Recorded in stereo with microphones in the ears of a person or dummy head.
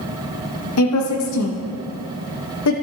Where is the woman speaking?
80° left, 0.9 m.